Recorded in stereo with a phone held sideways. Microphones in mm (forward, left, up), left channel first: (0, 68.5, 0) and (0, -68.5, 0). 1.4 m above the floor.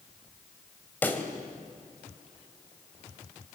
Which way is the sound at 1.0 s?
10° left (ahead or behind).